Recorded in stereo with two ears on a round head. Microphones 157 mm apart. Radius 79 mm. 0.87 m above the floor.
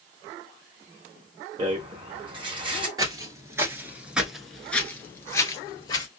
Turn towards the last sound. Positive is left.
turn(degrees=20)  # may be behind; listen again after turning